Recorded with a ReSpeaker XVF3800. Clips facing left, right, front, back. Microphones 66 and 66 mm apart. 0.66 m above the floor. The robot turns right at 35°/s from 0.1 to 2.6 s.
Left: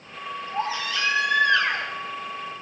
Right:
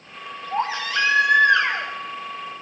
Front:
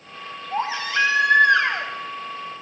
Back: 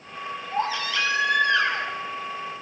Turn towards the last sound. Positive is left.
turn(degrees=15)